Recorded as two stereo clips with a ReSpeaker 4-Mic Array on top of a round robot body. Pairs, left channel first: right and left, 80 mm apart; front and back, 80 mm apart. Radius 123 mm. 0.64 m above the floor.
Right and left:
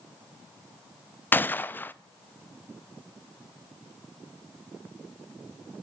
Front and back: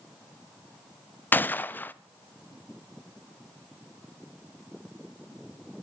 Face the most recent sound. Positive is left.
turn(degrees=-45)